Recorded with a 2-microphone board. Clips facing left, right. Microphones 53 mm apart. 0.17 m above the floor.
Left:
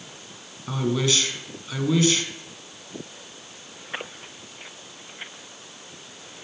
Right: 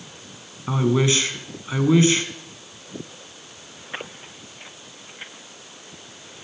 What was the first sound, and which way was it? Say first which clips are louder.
A man speaking: right 4 dB; 25° right (ahead or behind).